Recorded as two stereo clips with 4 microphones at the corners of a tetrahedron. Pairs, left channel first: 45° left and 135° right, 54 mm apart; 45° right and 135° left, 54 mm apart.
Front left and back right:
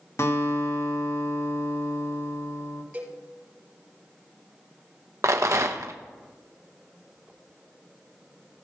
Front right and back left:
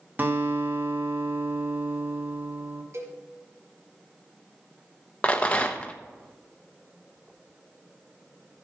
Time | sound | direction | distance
0.2 | a guitar | 80° left | 1.1 m
2.9 | a cowbell | 160° left | 5 m
5.2 | a rattle | 110° right | 1.0 m